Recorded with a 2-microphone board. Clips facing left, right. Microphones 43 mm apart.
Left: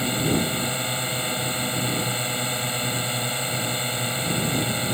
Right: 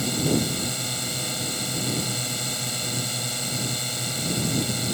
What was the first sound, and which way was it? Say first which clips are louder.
A drone: left 1 dB; 25° left (ahead or behind).